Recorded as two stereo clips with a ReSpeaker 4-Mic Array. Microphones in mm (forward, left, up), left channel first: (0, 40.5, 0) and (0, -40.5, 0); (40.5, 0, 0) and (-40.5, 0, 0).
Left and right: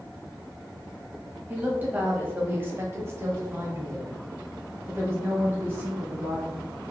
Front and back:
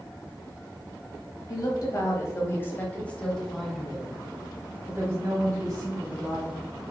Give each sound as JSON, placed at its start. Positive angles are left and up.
{"t": 1.5, "sound": "a woman speaking", "azimuth_deg": -20, "distance_m": 1.4}